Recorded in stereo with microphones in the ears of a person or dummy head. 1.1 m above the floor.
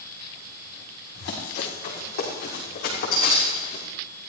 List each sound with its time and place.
1.1 s running footsteps: 60° left (ahead or behind), 7.5 m; by 3.8 s 45° left (ahead or behind), 6.5 m